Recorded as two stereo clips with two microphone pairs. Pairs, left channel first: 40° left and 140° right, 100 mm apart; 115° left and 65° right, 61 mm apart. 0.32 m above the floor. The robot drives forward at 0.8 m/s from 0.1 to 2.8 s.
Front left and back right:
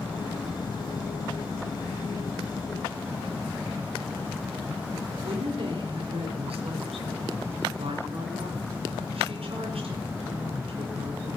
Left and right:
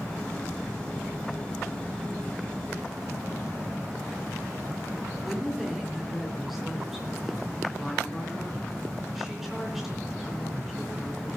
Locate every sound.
5.2 s a woman speaking: 150° right, 4 m